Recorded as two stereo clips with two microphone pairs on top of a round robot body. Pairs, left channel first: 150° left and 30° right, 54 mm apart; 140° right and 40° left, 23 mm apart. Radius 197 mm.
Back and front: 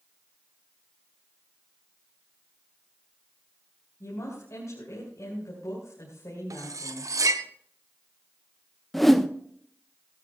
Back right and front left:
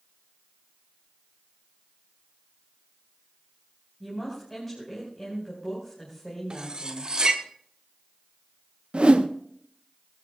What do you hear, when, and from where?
4.0 s a woman speaking: 130° left, 5 m
6.5 s cutlery clinking: 25° right, 1.1 m
8.9 s a whoosh: 65° left, 1.1 m